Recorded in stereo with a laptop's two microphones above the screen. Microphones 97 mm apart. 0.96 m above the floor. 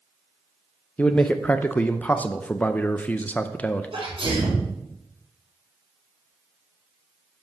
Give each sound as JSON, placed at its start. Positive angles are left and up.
{"t": 1.0, "sound": "a man speaking", "side_deg": 15, "distance_m": 0.5}
{"t": 3.9, "sound": "a sneeze", "side_deg": -65, "distance_m": 4.5}